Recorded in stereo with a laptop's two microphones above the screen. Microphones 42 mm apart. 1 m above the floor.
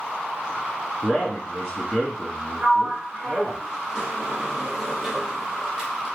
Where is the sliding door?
15° right (ahead or behind), 0.9 m.